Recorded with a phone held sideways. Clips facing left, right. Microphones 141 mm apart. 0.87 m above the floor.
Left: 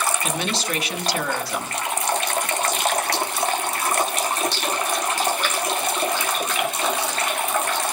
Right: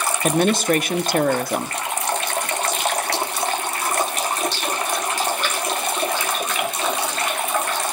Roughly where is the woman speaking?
Right.